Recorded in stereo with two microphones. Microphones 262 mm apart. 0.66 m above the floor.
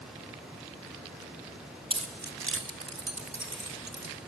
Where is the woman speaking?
I don't hear a woman speaking.